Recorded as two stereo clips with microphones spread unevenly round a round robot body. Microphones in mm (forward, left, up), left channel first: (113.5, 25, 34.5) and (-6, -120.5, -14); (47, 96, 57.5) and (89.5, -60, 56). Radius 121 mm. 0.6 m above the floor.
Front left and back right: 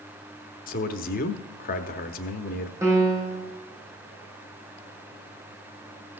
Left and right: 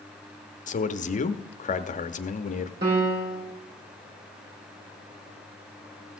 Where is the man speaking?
100° left, 0.8 m.